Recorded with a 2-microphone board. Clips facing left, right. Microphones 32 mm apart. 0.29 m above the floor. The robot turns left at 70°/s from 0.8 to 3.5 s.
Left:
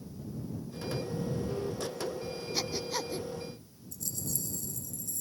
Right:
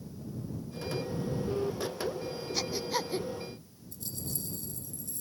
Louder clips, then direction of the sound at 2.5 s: Right 2 dB; 10° left (ahead or behind).